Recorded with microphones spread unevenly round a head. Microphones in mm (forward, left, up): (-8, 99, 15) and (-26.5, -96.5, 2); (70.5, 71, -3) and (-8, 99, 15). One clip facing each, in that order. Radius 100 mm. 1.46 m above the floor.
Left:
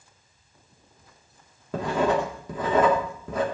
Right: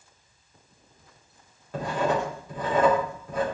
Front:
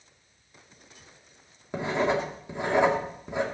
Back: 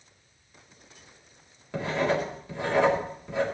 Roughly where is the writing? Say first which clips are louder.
Left 3 dB, front 1 dB; ahead left.